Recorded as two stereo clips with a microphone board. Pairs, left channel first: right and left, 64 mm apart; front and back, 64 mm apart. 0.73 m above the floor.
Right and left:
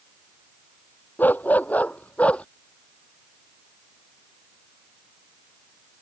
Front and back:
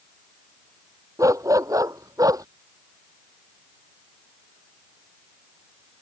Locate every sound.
1.2 s a dog barking: 150° right; by 2.5 s 160° right